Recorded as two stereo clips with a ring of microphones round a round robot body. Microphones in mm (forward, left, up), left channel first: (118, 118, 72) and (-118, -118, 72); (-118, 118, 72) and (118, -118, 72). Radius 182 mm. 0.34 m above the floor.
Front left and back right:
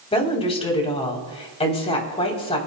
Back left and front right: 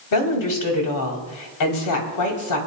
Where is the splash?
I don't hear a splash.